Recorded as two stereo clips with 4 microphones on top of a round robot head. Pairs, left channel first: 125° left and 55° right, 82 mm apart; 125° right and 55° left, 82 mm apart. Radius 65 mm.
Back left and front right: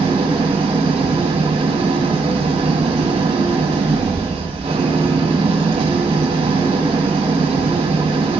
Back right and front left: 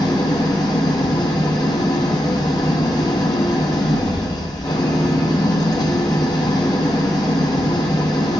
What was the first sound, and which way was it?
An engine running, 80° right.